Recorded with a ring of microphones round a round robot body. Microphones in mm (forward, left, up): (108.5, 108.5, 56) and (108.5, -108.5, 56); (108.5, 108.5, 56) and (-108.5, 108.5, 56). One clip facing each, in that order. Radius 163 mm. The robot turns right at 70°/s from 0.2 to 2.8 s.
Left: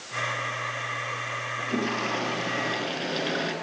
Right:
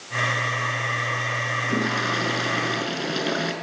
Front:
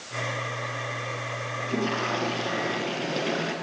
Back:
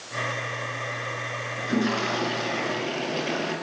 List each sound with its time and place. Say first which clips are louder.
1.6 s a toilet flushing: right 2 dB, back 4 dB; 145° right, 5 m; by 3.5 s 60° right, 5 m